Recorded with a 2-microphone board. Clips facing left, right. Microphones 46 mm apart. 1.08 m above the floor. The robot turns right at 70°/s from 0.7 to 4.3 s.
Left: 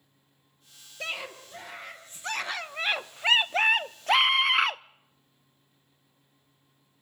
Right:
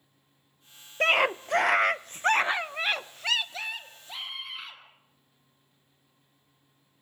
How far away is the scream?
About 0.5 m.